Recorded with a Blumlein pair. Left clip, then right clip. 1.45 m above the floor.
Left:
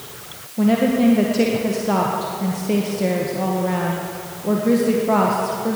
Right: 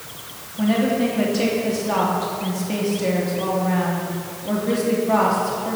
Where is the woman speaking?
55° left, 1.6 m.